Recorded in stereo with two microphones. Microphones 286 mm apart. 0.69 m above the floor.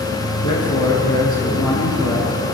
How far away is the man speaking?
About 8 m.